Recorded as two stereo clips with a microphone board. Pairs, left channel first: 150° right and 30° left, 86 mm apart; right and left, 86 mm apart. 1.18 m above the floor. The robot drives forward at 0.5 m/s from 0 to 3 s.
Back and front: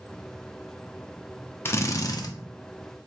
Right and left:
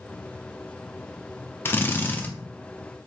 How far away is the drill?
About 0.5 m.